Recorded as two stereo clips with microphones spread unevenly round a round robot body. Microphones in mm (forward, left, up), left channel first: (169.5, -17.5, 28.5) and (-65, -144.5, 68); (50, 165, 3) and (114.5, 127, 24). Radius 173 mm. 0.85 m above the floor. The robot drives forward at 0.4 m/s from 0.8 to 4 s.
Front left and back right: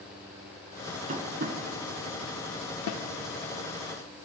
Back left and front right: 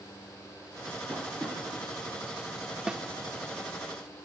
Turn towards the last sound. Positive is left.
turn(degrees=135)